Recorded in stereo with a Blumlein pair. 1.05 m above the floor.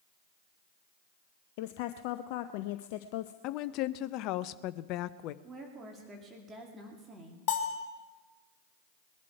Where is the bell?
35° left, 2.5 m.